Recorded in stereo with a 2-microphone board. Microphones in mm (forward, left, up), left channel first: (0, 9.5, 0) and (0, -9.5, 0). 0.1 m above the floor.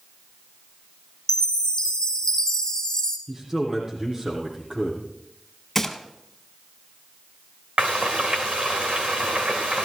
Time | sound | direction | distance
1.3 | a chime | 30° left (ahead or behind) | 2.5 m
3.3 | a man speaking | 25° right (ahead or behind) | 5 m
5.8 | a gunshot | 10° left (ahead or behind) | 1.5 m
7.8 | frying | 80° right | 2.5 m